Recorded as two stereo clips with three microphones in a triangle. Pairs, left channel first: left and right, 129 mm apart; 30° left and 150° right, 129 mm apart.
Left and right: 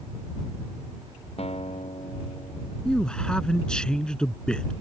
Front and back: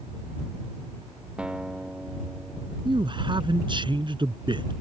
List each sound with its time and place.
1.4 s a guitar: 130° left
2.9 s a man speaking: 170° left